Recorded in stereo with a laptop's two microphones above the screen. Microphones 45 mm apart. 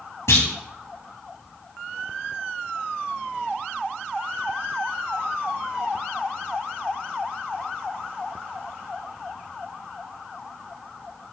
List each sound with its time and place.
0.3 s a clunk: 75° left (ahead or behind), 2 m